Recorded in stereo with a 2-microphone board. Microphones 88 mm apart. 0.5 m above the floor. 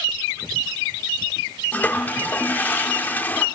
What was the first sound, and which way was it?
A toilet flushing, 20° left (ahead or behind).